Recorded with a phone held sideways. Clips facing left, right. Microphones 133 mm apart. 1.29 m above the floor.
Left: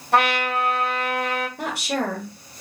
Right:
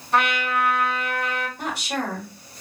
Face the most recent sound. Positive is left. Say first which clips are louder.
# left 2 dB
turn(degrees=70)  # may be behind; listen again after turning